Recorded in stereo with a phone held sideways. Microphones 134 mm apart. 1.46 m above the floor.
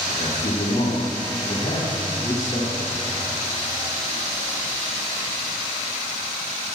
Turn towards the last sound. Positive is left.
turn(degrees=80)